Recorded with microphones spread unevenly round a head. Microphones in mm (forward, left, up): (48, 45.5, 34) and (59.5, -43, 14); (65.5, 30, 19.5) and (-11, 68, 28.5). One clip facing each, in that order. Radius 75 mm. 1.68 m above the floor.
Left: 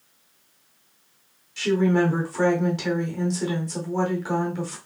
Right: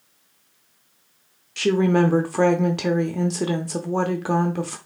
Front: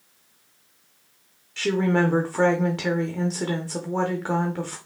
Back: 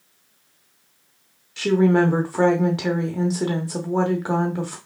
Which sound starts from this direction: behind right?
A woman speaking, at 1.6 s.